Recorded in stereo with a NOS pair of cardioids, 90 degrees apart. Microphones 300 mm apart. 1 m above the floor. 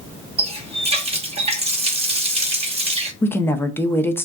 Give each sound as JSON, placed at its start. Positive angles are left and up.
{"t": 0.4, "sound": "a running tap", "azimuth_deg": -20, "distance_m": 0.8}
{"t": 3.2, "sound": "a woman speaking", "azimuth_deg": 10, "distance_m": 0.5}